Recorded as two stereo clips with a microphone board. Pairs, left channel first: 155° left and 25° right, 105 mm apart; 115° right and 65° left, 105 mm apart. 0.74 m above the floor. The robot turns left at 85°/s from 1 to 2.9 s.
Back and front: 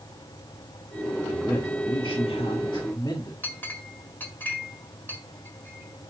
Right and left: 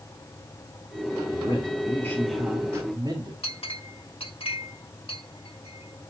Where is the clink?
130° right, 1.7 m.